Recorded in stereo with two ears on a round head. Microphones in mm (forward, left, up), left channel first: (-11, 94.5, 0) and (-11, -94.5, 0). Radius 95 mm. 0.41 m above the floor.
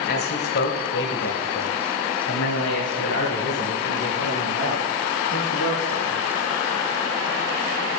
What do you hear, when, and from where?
0.1 s a man speaking: 45° left (ahead or behind), 1.5 m; by 6.2 s 75° left (ahead or behind), 4.5 m